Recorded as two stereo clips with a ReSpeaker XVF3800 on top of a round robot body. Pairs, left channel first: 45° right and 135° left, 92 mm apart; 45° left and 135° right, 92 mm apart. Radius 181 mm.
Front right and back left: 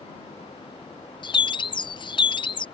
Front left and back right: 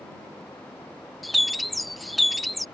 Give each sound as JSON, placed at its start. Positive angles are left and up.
{"t": 1.2, "sound": "a bird", "azimuth_deg": -45}